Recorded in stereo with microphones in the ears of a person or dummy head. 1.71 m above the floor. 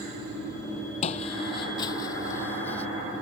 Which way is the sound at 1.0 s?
35° left (ahead or behind).